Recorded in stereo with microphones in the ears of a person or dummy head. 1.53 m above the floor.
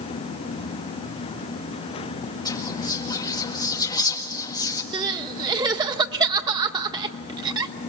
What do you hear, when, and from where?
2.5 s whispering: 20° left (ahead or behind), 2.0 m
4.9 s crying: 30° right (ahead or behind), 1.2 m